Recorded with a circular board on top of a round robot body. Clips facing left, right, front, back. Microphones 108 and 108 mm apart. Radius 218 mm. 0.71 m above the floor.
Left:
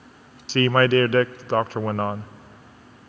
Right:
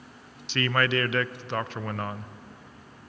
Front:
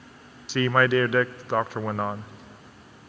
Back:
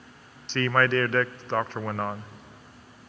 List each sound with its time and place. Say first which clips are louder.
0.5 s a man speaking: left 8 dB, front 2 dB; 75° left, 0.5 m